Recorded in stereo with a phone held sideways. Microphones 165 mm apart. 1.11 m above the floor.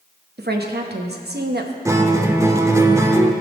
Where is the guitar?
20° right (ahead or behind), 0.7 m.